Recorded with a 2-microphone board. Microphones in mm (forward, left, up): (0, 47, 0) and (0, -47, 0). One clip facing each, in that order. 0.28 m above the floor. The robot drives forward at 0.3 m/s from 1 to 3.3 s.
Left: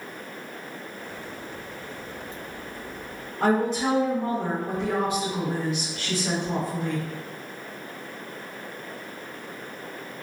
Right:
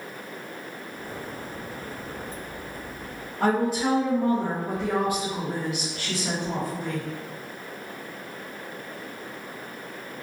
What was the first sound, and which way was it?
A woman speaking, 5° right (ahead or behind).